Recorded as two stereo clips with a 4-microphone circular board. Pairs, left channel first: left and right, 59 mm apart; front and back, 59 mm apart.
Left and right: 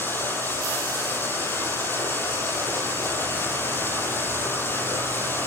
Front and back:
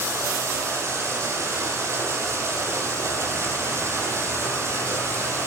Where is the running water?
140° left, 6.5 m.